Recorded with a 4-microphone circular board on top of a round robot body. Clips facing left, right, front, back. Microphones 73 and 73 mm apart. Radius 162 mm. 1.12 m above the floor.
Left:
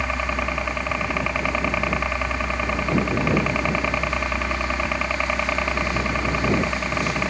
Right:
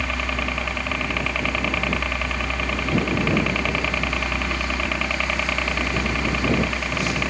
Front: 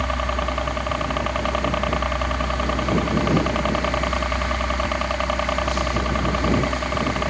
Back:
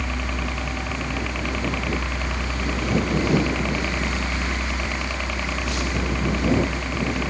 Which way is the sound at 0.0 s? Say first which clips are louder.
Left 1 dB, front 5 dB; 20° left.